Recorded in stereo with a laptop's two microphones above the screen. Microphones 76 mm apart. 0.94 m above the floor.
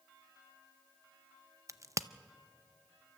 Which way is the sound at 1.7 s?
40° right (ahead or behind).